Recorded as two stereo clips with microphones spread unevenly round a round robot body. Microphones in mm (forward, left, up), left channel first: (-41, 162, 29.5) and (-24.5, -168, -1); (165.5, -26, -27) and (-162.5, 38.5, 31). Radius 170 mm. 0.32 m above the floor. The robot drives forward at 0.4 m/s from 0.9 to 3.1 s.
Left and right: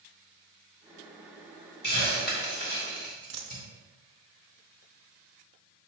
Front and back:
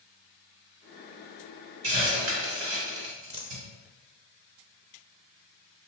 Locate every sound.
1.8 s a hiss: 155° left, 1.8 m; by 3.6 s 160° left, 2 m
3.3 s a dropped coin: 120° right, 0.8 m